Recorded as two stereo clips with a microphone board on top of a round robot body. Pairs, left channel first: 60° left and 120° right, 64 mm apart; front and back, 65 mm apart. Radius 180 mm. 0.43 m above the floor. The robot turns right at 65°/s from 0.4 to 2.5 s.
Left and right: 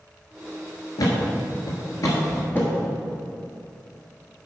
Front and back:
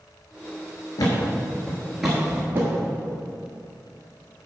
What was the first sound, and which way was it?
A thud, 20° left.